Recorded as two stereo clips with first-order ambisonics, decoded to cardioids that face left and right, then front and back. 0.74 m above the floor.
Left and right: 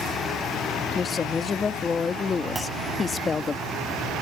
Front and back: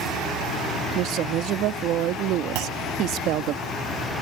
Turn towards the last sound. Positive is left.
turn(degrees=-170)